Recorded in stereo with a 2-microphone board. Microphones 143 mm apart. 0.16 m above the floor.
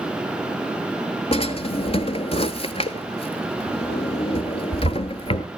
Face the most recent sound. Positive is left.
turn(degrees=40)  # may be behind; listen again after turning